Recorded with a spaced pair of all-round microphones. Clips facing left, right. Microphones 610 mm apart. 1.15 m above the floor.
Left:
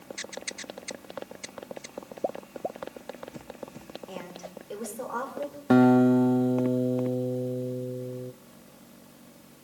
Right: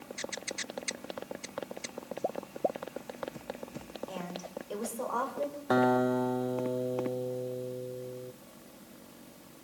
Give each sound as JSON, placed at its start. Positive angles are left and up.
{"t": 4.1, "sound": "a woman speaking", "side_deg": 50, "distance_m": 4.5}
{"t": 5.7, "sound": "a guitar", "side_deg": 55, "distance_m": 0.6}